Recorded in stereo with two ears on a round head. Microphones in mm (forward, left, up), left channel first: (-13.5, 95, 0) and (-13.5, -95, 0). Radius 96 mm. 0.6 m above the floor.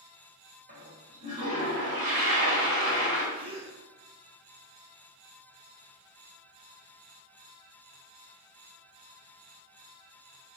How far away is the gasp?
About 0.7 m.